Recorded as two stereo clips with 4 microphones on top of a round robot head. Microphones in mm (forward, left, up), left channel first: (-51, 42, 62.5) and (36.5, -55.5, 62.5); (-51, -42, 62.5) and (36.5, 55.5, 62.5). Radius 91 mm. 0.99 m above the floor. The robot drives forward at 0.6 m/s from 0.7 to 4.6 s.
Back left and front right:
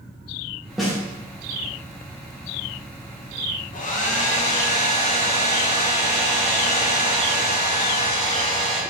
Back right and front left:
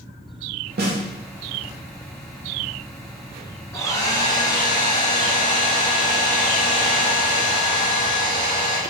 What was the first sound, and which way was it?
A snare drum, 40° left.